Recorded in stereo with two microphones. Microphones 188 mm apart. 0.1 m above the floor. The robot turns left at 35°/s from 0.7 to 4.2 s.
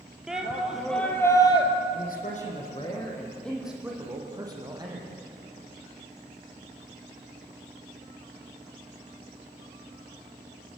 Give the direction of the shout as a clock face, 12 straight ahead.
6 o'clock.